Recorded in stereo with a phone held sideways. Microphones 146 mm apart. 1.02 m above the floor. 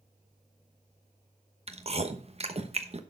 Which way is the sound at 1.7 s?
45° right (ahead or behind).